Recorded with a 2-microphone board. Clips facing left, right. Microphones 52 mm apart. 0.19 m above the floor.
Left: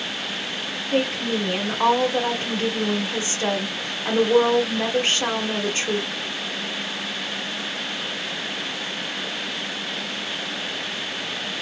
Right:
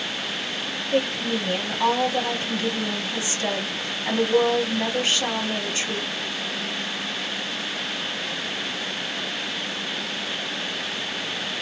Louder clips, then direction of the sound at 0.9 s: Left 1 dB; 40° left (ahead or behind).